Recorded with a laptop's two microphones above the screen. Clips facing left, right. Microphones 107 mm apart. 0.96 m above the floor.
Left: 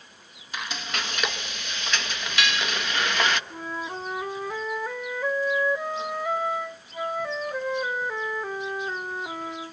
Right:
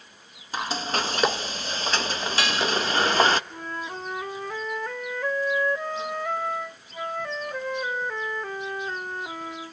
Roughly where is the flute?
Centre.